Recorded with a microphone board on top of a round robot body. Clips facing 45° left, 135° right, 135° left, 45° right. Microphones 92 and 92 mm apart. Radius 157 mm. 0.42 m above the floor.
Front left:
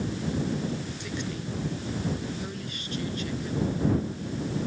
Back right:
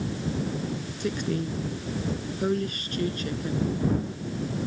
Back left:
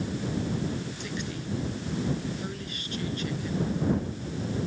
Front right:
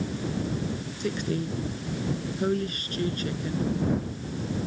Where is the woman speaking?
95° right.